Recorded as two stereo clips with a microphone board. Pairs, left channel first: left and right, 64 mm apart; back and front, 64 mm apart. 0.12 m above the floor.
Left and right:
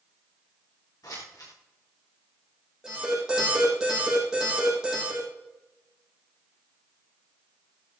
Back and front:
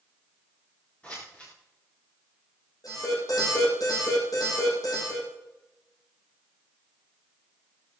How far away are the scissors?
About 7.5 m.